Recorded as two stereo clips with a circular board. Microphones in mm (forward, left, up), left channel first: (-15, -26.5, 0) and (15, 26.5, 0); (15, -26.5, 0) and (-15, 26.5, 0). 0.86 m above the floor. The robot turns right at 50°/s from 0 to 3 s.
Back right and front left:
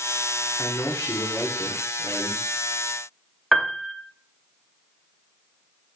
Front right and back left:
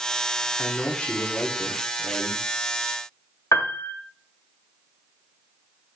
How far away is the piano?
About 0.9 m.